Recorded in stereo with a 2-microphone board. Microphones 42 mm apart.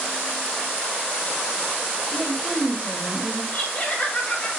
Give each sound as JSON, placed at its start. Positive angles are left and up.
{"t": 2.1, "sound": "a woman speaking", "side_deg": -15, "distance_m": 5.5}
{"t": 3.5, "sound": "laughter", "side_deg": 20, "distance_m": 2.0}